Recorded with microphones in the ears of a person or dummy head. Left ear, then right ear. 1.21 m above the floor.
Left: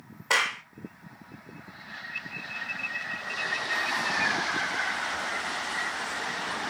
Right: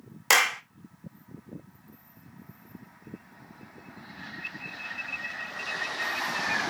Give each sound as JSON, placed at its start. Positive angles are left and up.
{"t": 0.3, "sound": "a clap", "side_deg": -65, "distance_m": 1.1}